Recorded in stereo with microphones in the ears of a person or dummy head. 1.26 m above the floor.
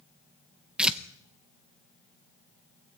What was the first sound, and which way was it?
Tearing paper, 5° right (ahead or behind).